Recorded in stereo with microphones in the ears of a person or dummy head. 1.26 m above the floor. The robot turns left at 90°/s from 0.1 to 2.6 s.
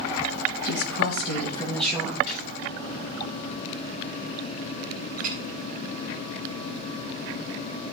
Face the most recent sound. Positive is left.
turn(degrees=-50)  # may be behind; listen again after turning